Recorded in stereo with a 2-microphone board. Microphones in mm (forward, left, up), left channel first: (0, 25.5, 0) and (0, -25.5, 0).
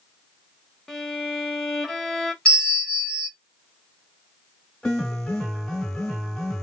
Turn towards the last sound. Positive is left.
turn(degrees=10)  # may be behind; listen again after turning